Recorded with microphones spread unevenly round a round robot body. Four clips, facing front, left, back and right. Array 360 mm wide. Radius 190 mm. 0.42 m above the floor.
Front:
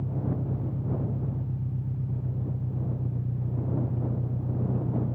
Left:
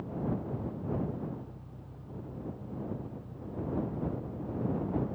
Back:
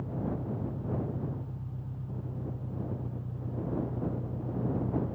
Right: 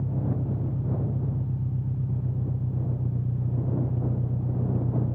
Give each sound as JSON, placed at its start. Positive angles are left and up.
{"t": 0.0, "sound": "an engine running", "azimuth_deg": -60}